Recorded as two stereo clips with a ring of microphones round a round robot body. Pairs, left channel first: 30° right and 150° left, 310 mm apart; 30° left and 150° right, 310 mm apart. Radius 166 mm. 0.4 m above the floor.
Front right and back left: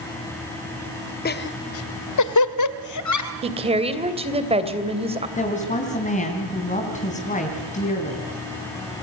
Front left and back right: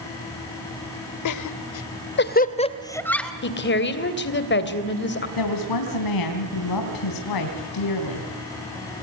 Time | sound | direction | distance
1.2 | laughter | 25° left | 1.7 m
3.4 | a woman speaking | 80° left | 2.5 m
5.4 | a woman speaking | 35° left | 3.5 m